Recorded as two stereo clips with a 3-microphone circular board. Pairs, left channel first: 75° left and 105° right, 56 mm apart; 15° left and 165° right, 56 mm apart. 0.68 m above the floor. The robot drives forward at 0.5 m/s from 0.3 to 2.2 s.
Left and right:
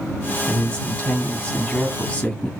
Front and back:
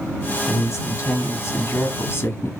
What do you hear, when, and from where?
0.5 s a man speaking: 15° left, 2 m; by 2.5 s 30° left, 1.4 m